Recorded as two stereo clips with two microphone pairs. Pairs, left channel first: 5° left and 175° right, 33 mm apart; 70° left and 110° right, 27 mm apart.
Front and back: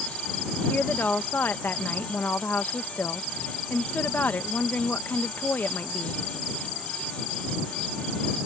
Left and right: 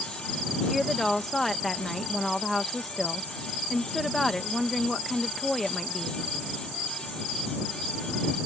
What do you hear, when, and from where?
0.7 s a woman speaking: 10° right